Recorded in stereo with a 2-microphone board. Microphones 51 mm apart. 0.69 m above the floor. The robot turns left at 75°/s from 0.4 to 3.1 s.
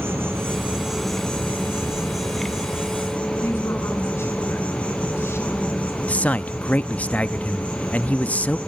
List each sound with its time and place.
0.0 s an insect: 130° right, 4 m; by 8.7 s 30° left, 4 m
3.4 s a woman speaking: 55° left (ahead or behind), 6.5 m
6.1 s a man speaking: 25° left (ahead or behind), 0.5 m